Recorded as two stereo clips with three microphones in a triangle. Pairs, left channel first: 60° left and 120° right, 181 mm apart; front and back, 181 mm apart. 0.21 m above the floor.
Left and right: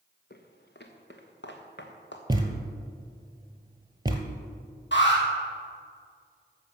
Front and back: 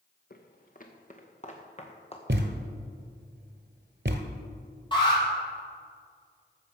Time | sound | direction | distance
0.3 | footsteps | 35° left | 1.6 m
2.3 | a thud | 175° left | 1.4 m
4.9 | an alarm | 65° left | 4.5 m